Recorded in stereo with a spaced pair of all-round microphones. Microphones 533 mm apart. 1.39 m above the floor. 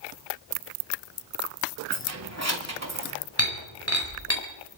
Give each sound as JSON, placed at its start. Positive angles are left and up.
{"t": 1.9, "sound": "keys jangling", "side_deg": -30, "distance_m": 2.5}
{"t": 3.4, "sound": "breaking glass", "side_deg": 25, "distance_m": 4.0}